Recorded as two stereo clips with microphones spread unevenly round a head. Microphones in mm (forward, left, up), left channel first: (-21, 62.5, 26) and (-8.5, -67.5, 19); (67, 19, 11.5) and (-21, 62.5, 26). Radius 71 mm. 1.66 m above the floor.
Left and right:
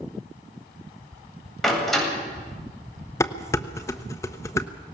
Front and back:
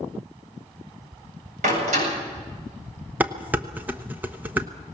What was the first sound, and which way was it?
A door slam, 175° right.